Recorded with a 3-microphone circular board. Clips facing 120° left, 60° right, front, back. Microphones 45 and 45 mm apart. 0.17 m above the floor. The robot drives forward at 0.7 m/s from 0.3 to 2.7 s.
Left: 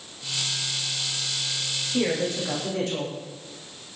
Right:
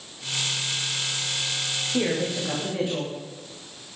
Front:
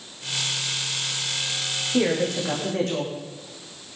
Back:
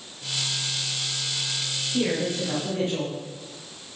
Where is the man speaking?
15° left, 8.5 m; by 3.1 s 20° left, 8 m.